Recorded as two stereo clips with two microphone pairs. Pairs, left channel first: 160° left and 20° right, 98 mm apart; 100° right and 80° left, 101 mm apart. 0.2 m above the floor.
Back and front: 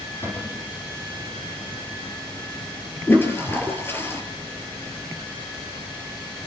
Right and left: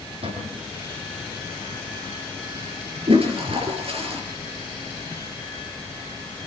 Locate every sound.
0.2 s a cupboard door: 95° left, 8.5 m
3.1 s a toilet flushing: 95° left, 4.5 m